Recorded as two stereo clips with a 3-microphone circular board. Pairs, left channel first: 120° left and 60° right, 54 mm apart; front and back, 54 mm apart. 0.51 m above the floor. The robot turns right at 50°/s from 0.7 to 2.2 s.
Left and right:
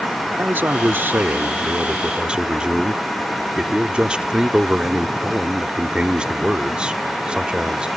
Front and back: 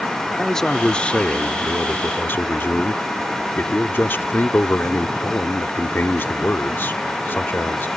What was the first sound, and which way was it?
A man speaking, 75° right.